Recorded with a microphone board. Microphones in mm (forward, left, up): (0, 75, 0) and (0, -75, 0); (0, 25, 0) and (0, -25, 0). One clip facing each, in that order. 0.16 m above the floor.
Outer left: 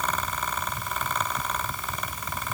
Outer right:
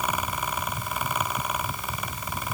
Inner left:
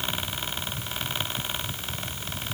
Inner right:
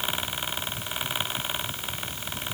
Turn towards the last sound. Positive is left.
No sound to turn to.